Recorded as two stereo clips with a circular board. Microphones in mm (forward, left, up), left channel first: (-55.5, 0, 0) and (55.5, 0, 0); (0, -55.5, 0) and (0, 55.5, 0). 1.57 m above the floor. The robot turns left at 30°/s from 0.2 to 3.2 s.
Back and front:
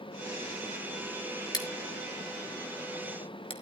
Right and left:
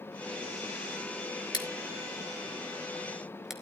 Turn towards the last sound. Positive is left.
turn(degrees=175)